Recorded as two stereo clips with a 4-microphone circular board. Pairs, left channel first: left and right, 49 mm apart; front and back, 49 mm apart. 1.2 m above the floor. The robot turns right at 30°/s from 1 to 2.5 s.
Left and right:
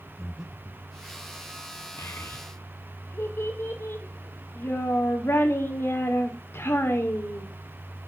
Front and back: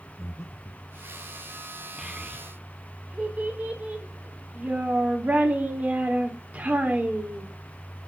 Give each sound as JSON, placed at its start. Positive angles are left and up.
{"t": 0.2, "sound": "breathing", "azimuth_deg": 0, "distance_m": 1.1}
{"t": 2.0, "sound": "a child speaking", "azimuth_deg": 105, "distance_m": 2.5}